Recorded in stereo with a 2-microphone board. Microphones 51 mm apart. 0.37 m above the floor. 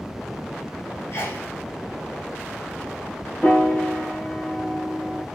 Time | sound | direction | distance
1.1 | a sneeze | 55° left (ahead or behind) | 3 m
3.4 | a piano | 30° left (ahead or behind) | 4 m